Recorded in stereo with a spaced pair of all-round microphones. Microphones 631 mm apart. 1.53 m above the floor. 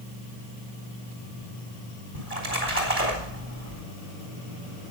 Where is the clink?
I don't hear a clink.